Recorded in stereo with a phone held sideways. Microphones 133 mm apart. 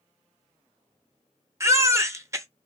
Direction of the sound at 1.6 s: 20° right (ahead or behind).